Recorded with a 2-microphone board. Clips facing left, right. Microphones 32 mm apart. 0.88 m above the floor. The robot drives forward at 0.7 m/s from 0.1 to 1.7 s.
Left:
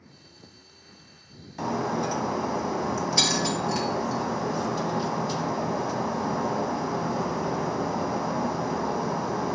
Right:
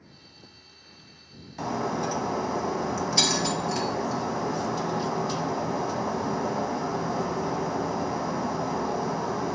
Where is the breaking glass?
5° left (ahead or behind), 0.8 m.